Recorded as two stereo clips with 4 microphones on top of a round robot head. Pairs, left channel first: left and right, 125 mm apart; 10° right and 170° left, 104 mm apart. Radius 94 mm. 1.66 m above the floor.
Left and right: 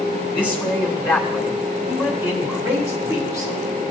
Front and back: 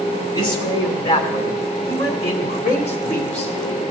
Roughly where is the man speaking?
Ahead.